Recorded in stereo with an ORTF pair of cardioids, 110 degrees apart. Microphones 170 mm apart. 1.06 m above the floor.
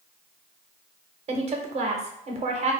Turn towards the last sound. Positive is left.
turn(degrees=-40)